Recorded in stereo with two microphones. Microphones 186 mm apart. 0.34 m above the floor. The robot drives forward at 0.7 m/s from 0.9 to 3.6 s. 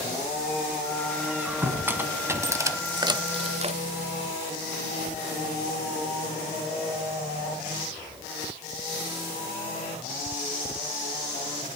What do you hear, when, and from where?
1.2 s a squeak: 10° right (ahead or behind), 1.9 m; by 3.8 s 35° right (ahead or behind), 0.5 m